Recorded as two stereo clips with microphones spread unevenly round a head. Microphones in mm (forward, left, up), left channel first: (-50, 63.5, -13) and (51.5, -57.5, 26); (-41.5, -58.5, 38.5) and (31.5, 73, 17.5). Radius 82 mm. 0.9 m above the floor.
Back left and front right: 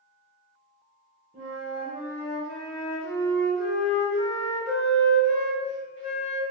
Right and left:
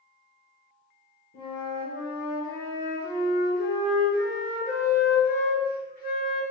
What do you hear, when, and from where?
1.3 s a flute: 100° right, 1.3 m